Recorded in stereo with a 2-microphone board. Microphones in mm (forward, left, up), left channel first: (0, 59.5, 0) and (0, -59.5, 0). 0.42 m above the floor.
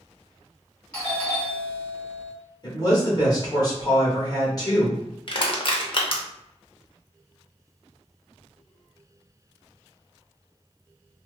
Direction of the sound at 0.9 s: 5° left (ahead or behind).